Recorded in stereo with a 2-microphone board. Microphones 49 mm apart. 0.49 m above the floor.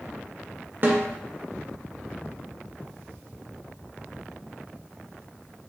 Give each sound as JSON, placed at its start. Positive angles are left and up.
{"t": 0.8, "sound": "a snare drum", "side_deg": -40, "distance_m": 0.5}